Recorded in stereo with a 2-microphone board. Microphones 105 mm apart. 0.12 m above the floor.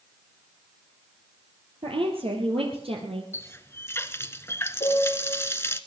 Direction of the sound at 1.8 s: 60° right (ahead or behind).